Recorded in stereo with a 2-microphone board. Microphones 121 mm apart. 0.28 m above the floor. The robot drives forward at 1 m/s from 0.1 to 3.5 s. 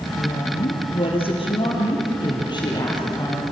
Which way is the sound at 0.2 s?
55° left (ahead or behind).